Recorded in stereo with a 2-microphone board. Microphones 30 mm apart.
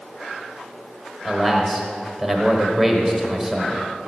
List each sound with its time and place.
1.2 s a man speaking: centre (ahead or behind), 1.1 m